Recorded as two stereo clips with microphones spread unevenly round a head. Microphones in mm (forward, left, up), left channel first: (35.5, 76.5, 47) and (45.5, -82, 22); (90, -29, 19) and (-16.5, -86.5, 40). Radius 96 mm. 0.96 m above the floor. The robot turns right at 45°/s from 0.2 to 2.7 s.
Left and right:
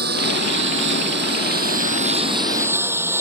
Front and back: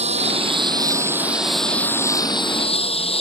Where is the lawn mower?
125° right; by 3.2 s 10° right.